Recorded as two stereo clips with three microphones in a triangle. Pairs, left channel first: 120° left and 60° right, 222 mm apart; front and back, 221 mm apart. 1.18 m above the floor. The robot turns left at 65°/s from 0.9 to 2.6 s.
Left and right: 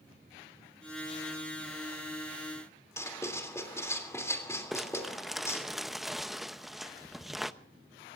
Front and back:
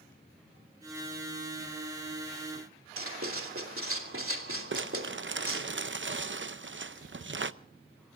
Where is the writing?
160° right, 2.5 m.